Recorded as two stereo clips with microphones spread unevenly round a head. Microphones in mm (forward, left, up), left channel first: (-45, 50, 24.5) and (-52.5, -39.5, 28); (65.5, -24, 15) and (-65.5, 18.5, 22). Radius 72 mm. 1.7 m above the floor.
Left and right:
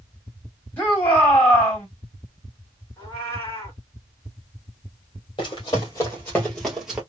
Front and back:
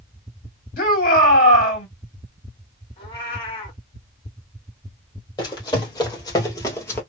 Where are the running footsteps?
40° left, 2.5 m; by 7.0 s 50° right, 1.7 m.